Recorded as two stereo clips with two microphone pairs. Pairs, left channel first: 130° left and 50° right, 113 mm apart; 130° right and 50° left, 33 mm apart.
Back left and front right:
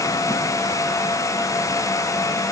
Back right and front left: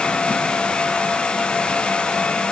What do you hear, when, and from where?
Only background noise.